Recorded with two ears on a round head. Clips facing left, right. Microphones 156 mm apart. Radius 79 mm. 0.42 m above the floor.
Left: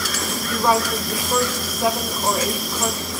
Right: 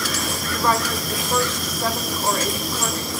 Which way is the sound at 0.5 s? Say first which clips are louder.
Left 3 dB; 10° left (ahead or behind).